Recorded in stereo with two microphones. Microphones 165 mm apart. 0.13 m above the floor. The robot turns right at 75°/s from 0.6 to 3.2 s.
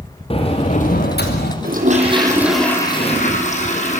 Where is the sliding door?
35° left, 3.5 m; by 1.5 s 105° left, 3.5 m.